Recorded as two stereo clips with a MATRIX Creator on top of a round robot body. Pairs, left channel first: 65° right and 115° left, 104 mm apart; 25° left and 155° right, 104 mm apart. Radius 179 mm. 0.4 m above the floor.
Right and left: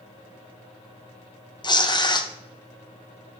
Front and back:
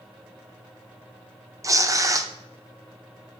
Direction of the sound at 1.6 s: 105° right.